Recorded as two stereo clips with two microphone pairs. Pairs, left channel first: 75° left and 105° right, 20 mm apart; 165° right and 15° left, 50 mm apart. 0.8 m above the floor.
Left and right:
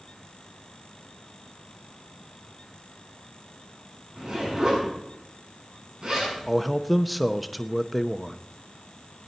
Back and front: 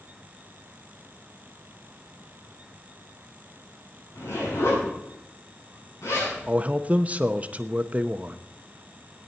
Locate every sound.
4.2 s a zipper: 145° right, 8 m
6.5 s a man speaking: 10° right, 0.7 m